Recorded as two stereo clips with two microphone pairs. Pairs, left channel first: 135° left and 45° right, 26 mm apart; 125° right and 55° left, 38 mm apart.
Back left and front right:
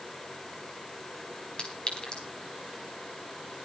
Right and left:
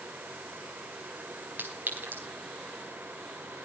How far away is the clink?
About 4 m.